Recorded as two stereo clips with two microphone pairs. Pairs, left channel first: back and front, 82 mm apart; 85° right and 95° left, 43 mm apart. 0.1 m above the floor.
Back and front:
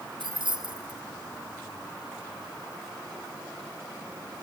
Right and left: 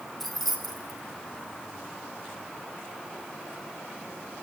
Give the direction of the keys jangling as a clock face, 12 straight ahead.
12 o'clock.